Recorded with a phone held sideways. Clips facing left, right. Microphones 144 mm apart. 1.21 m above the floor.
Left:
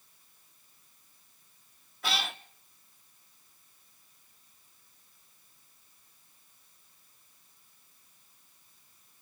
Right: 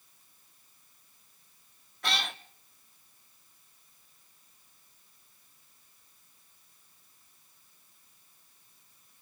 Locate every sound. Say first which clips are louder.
2.0 s a cat meowing: even; 5° left (ahead or behind), 0.7 m